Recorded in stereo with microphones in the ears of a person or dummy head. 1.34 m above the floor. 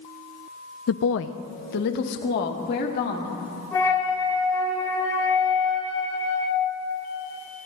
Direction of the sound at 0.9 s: 60° left (ahead or behind).